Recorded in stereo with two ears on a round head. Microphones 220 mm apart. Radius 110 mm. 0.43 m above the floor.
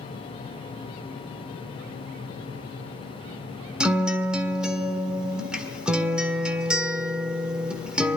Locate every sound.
3.8 s a guitar: 5° right (ahead or behind), 1.5 m